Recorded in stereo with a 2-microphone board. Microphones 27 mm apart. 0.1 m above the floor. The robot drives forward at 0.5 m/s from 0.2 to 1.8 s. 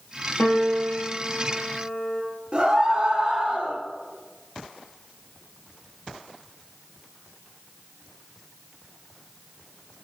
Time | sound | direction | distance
0.4 | a piano | 55° left (ahead or behind) | 1.7 m
2.5 | a scream | 35° right (ahead or behind) | 1.9 m